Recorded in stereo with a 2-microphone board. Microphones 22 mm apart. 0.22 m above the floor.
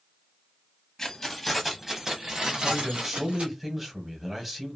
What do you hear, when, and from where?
1.0 s keys jangling: 15° left (ahead or behind), 0.9 m; by 3.4 s 55° right (ahead or behind), 1.4 m
2.4 s a man speaking: 5° right (ahead or behind), 1.1 m